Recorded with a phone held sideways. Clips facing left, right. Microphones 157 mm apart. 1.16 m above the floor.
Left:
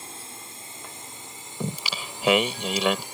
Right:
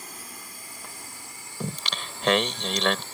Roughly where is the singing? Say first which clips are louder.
Left 2 dB; centre.